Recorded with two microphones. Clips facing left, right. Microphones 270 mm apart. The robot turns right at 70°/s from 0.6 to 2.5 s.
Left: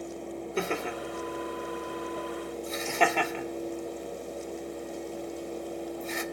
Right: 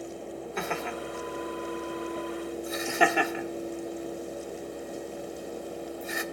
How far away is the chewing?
No chewing in this recording.